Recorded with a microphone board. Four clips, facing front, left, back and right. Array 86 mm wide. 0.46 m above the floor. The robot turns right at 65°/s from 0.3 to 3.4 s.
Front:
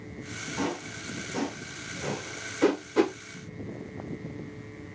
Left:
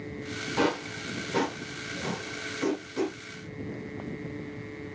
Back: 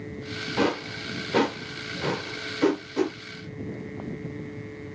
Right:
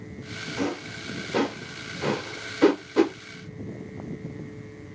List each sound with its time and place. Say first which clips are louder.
0.6 s a whoosh: left 3 dB, back 7 dB; 145° left, 1.7 m; by 3.1 s 50° right, 1.7 m